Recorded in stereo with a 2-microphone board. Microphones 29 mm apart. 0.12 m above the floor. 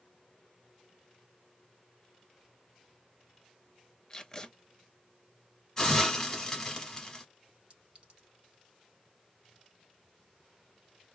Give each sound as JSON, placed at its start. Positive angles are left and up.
{"t": 4.1, "sound": "tape being pulled", "side_deg": 20, "distance_m": 0.7}
{"t": 5.8, "sound": "a hiss", "side_deg": 15, "distance_m": 1.3}
{"t": 7.7, "sound": "a clink", "side_deg": -40, "distance_m": 1.5}